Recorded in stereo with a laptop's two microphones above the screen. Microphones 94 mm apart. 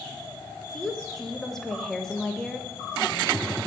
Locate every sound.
0.7 s a woman speaking: 5° left (ahead or behind), 0.9 m